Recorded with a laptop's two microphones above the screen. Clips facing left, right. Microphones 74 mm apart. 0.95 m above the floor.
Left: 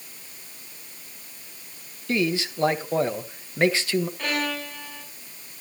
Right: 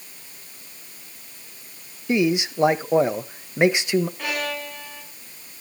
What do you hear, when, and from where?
2.1 s a man speaking: 20° right (ahead or behind), 0.9 m
4.2 s a violin: 5° right (ahead or behind), 8 m